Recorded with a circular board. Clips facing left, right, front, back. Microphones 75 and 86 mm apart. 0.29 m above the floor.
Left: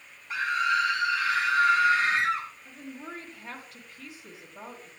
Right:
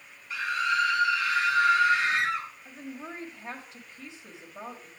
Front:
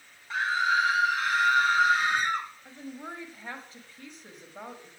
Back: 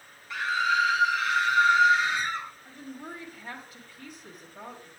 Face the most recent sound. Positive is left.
turn(degrees=-40)